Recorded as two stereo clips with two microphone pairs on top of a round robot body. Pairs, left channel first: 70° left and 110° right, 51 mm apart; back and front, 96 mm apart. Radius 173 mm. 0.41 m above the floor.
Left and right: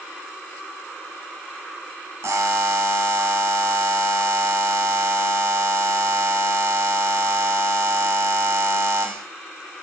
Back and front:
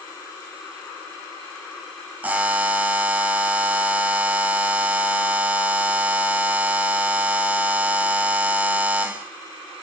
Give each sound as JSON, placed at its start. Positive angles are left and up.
{"t": 2.2, "sound": "a buzzer", "azimuth_deg": -75, "distance_m": 0.6}